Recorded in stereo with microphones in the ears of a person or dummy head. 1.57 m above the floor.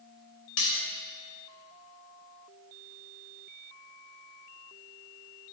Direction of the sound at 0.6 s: 70° left (ahead or behind).